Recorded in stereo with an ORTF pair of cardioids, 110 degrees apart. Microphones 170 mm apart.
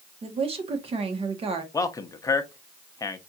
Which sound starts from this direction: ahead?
A man speaking, at 1.7 s.